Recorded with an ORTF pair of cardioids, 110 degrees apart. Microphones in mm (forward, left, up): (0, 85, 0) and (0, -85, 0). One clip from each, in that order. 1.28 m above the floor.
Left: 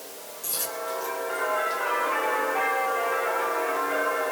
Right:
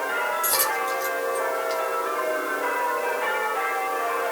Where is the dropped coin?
35° right, 7 m.